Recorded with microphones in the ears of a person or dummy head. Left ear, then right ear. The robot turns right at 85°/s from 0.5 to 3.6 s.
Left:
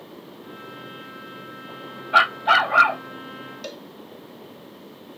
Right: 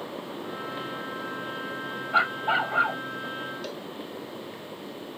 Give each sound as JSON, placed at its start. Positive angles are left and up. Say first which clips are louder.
{"t": 2.1, "sound": "a dog barking", "louder": "left 7 dB", "azimuth_deg": 45}
{"t": 3.6, "sound": "a cowbell", "louder": "even", "side_deg": 15}